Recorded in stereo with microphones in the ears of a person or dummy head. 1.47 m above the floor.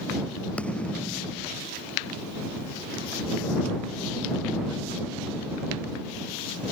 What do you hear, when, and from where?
0.6 s a thud: 10° left (ahead or behind)